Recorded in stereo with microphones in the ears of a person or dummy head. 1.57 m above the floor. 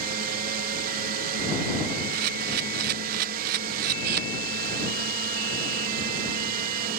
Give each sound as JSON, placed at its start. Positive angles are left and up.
{"t": 0.0, "sound": "a drone", "side_deg": -50}
{"t": 2.1, "sound": "a camera shutter", "side_deg": -55}